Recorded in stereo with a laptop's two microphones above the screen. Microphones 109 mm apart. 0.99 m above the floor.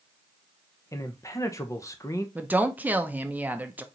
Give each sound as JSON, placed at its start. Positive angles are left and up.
{"t": 0.9, "sound": "a man speaking", "side_deg": 30, "distance_m": 0.8}
{"t": 2.4, "sound": "a woman speaking", "side_deg": -15, "distance_m": 0.6}